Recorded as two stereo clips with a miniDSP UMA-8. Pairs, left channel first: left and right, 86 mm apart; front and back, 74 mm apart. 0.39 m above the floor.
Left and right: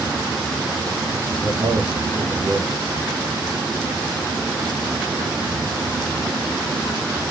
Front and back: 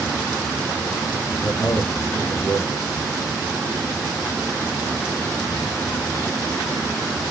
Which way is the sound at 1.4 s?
50° right.